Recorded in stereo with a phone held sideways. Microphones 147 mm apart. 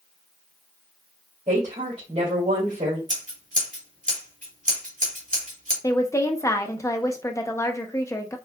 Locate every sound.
1.5 s a woman speaking: 50° right (ahead or behind), 2.5 m
3.1 s scissors: 65° right (ahead or behind), 2 m
5.8 s a woman speaking: 20° left (ahead or behind), 0.7 m